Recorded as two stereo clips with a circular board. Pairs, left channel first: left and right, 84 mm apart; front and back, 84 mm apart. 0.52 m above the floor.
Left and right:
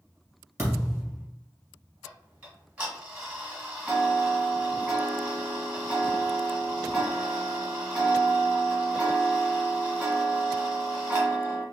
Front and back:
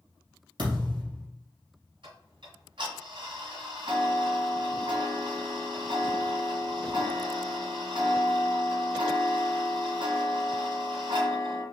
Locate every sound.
0.6 s a thud: 150° right, 2 m
2.0 s ticking: 160° right, 1.9 m